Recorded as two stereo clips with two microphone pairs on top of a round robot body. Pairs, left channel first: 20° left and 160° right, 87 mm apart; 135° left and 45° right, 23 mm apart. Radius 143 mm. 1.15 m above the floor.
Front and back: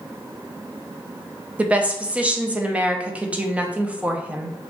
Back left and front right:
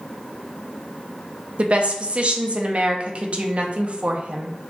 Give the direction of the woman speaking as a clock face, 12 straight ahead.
3 o'clock.